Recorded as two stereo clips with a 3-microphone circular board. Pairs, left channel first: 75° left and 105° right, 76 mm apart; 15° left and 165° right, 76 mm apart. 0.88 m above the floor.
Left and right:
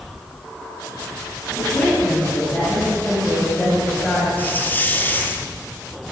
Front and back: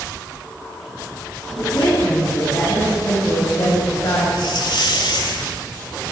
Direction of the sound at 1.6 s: 5° left.